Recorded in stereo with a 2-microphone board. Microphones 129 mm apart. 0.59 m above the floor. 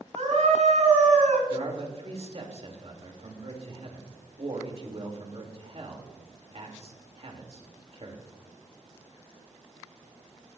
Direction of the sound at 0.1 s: 70° right (ahead or behind).